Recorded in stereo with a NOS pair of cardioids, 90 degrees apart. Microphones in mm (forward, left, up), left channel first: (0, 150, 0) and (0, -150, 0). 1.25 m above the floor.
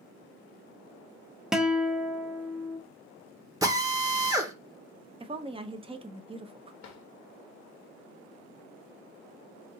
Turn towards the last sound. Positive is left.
turn(degrees=70)